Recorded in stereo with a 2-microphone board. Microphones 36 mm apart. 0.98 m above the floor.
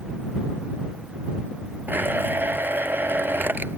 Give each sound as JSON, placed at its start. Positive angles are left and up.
{"t": 1.9, "sound": "a blender", "side_deg": -65}